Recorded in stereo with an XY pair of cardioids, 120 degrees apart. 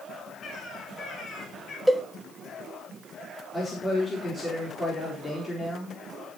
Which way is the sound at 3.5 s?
25° left.